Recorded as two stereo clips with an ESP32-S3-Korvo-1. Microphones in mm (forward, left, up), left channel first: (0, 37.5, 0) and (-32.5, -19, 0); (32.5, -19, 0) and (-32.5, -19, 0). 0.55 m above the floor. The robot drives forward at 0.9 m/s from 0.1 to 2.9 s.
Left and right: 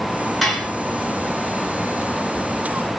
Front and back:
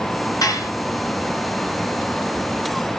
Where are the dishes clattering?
30° right, 4.5 m.